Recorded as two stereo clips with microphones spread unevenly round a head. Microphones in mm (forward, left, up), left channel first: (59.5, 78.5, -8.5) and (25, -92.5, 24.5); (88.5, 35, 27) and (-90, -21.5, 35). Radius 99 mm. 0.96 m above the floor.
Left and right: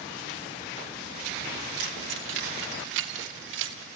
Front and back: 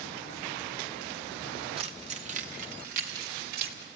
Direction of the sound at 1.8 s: 100° right.